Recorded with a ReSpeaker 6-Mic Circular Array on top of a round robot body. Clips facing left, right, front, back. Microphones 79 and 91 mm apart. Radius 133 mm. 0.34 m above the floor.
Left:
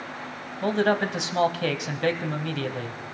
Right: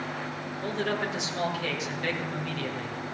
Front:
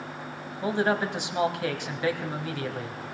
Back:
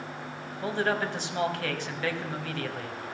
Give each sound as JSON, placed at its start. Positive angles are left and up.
{"t": 0.6, "sound": "a man speaking", "azimuth_deg": 70, "distance_m": 3.0}